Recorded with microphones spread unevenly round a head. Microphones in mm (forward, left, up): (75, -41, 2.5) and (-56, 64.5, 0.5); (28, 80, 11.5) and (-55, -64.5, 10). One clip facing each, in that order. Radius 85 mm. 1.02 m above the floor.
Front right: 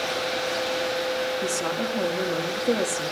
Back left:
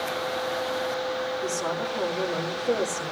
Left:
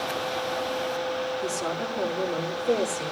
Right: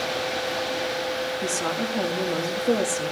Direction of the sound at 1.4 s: 85° right.